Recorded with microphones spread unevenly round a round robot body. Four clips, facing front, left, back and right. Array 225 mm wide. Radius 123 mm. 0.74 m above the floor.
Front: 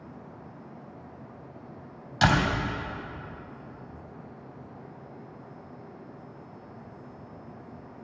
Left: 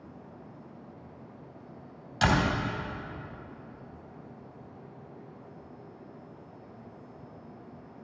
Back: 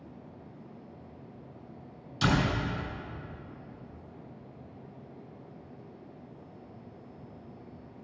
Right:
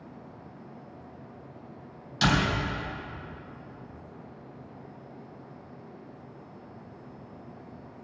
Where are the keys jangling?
No keys jangling in this recording.